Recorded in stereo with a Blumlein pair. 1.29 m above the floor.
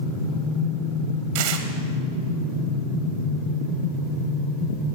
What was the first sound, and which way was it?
Tearing paper, 50° right.